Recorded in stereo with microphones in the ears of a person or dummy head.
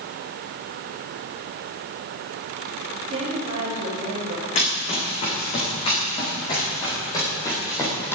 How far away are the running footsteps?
About 5.5 m.